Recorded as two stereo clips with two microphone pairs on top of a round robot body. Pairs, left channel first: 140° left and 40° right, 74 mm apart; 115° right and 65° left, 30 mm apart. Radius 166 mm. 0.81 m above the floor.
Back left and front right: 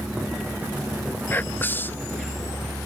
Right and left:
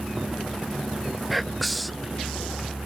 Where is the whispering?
175° left.